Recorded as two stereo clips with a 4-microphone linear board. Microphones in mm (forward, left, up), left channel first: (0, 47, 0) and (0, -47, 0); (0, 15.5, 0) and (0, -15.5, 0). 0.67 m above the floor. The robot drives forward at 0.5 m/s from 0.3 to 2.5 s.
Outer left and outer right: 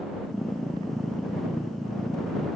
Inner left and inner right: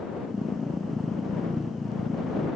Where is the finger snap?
No finger snap in this recording.